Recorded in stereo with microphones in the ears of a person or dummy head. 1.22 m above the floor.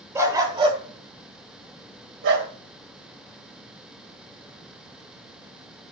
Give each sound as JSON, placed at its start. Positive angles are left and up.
{"t": 0.1, "sound": "a dog barking", "side_deg": -15, "distance_m": 2.5}